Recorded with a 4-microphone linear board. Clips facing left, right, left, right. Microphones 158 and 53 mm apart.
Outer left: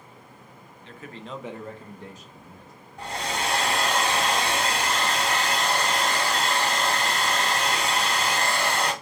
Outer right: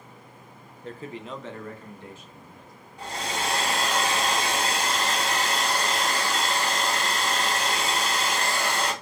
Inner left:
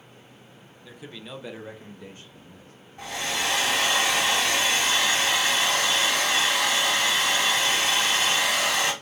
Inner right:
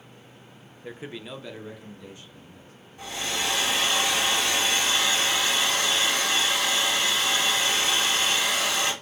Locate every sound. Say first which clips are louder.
0.8 s a man speaking: outer right 4 dB, inner right 4 dB; 50° right (ahead or behind), 0.5 m; by 2.7 s 45° left (ahead or behind), 1.6 m
3.0 s a hair dryer: outer left 1 dB, inner left 1 dB; 40° left (ahead or behind), 1.9 m